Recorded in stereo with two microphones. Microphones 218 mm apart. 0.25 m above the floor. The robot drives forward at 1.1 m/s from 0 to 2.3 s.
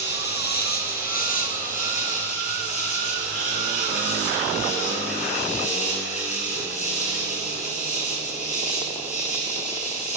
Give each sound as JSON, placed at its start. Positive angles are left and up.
{"t": 0.0, "sound": "an insect", "side_deg": 50, "distance_m": 3.5}